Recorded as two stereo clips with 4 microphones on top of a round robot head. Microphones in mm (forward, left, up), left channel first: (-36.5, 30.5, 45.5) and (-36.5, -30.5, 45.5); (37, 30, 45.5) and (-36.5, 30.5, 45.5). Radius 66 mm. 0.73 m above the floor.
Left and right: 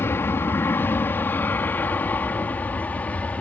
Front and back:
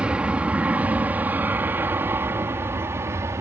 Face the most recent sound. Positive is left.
turn(degrees=145)